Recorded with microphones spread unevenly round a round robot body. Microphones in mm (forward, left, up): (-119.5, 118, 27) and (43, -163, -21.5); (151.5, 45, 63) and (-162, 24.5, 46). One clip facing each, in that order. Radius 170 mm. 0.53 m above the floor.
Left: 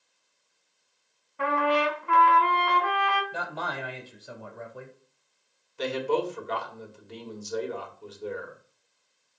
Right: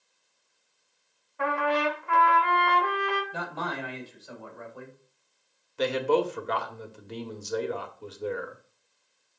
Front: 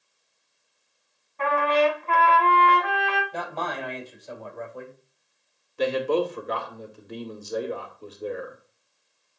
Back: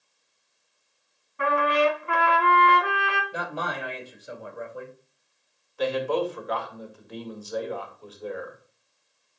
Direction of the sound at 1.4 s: 105° left.